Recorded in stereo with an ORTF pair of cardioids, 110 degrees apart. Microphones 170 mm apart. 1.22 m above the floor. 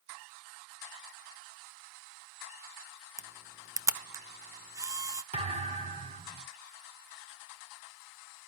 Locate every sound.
3.2 s a camera shutter: 20° right, 0.7 m
5.3 s a thud: 40° right, 4.5 m